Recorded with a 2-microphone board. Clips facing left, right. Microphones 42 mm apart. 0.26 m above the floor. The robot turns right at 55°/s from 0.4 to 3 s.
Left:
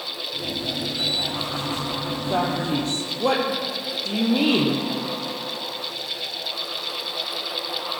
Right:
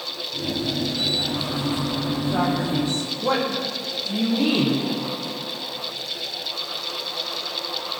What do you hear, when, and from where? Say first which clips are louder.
2.3 s a man speaking: left 1 dB; 55° left (ahead or behind), 8 m; by 4.8 s 80° left, 8 m